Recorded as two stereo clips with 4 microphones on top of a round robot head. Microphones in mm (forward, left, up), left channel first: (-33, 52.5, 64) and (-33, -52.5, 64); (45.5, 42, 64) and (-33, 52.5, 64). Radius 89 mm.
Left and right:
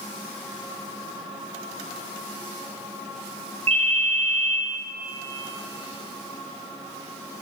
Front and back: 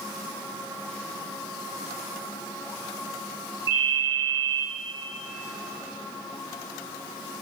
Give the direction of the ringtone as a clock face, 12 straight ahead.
4 o'clock.